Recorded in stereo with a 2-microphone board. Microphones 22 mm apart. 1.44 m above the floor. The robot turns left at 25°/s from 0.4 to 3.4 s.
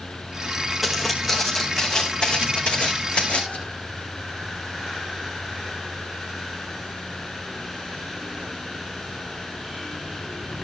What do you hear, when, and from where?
0.8 s footsteps: centre (ahead or behind), 4 m; by 3.6 s 70° left (ahead or behind), 3.5 m